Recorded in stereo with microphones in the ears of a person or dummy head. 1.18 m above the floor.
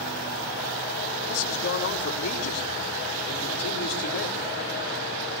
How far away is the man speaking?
About 4 m.